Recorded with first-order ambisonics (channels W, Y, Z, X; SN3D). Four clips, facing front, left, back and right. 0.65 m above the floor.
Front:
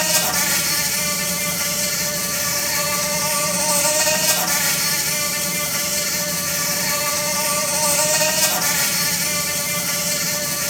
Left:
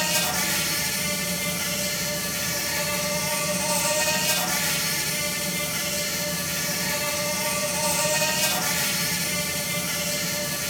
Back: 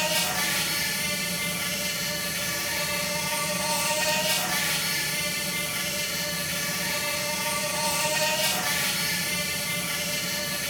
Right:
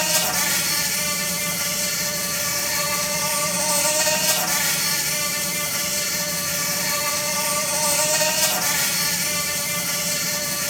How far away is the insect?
About 4 m.